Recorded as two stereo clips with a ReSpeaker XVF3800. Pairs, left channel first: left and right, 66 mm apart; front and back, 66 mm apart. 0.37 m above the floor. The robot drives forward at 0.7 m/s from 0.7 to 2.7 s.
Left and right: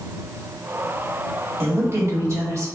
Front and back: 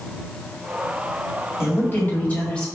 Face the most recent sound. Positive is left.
turn(degrees=-75)